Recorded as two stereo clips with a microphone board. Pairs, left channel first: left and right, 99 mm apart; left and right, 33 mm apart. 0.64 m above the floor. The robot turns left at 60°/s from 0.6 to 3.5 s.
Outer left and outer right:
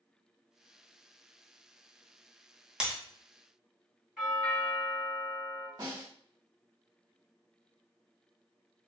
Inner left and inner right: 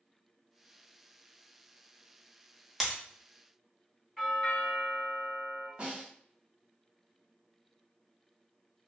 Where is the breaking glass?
10° right (ahead or behind), 0.9 m; by 3.0 s 20° right (ahead or behind), 0.9 m.